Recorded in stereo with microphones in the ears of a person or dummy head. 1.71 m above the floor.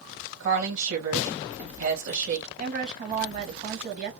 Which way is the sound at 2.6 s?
45° right (ahead or behind).